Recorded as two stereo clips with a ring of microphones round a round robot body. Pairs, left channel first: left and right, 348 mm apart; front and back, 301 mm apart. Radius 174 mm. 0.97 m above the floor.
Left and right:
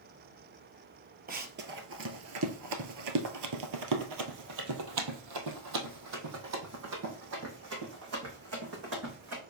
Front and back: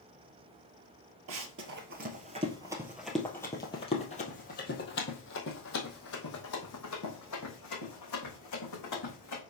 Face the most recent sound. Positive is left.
turn(degrees=-40)